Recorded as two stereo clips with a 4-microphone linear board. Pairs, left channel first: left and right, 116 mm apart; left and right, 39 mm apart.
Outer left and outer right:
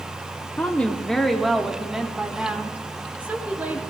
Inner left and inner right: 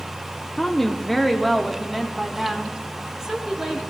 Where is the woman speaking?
15° left (ahead or behind), 1.1 m; by 3.8 s 15° right (ahead or behind), 3 m.